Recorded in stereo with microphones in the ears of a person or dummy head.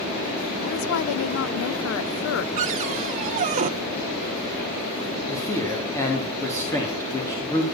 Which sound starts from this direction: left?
A woman speaking, at 0.6 s.